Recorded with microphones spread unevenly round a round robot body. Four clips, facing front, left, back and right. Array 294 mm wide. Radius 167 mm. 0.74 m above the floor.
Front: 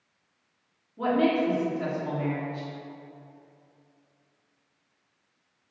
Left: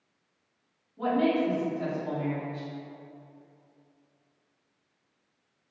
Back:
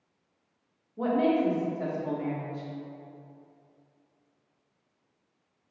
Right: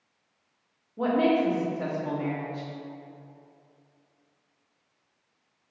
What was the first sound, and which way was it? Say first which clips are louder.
A woman speaking: right 2 dB, front 1 dB; 95° right.